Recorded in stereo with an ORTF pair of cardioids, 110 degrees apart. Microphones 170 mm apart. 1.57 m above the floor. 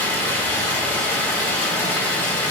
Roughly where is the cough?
No cough in this recording.